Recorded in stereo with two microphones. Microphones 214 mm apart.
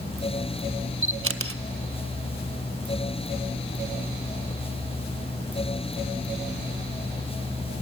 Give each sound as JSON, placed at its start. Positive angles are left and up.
{"t": 1.0, "sound": "a camera shutter", "side_deg": -80, "distance_m": 0.7}